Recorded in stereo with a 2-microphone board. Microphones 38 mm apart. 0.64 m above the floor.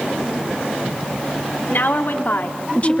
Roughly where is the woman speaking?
Left.